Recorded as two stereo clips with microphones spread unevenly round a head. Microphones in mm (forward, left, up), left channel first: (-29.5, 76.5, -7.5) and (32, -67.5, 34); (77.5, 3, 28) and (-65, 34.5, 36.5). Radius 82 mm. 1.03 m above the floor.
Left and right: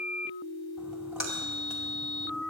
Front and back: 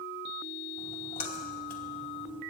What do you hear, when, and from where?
0.8 s a splash: 20° left, 2.5 m